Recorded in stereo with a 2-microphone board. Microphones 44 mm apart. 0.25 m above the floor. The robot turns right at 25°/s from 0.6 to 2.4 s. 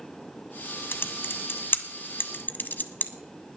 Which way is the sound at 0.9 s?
55° left (ahead or behind).